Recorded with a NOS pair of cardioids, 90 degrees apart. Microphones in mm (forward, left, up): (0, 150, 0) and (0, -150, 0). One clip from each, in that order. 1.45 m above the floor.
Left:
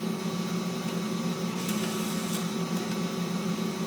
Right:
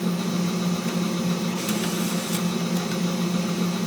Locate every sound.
0.0 s a machine running: 40° right, 1.3 m